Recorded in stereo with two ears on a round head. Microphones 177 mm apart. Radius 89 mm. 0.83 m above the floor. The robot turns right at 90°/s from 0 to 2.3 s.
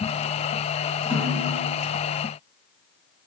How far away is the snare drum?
About 1.7 m.